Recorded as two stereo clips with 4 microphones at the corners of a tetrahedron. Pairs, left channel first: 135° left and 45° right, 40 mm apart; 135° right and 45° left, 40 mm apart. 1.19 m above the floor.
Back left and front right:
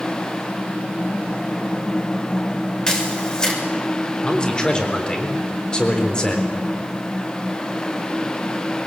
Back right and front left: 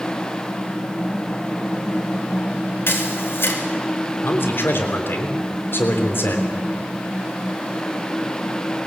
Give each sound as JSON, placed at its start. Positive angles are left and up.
{"t": 2.9, "sound": "a camera shutter", "azimuth_deg": -150, "distance_m": 3.0}
{"t": 4.2, "sound": "a man speaking", "azimuth_deg": -155, "distance_m": 3.5}